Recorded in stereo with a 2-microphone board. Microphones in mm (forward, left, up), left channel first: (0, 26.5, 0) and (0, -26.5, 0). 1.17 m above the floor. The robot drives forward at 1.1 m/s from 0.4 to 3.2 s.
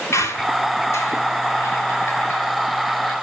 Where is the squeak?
70° left (ahead or behind), 2.5 m; by 3.1 s 35° left (ahead or behind), 4 m.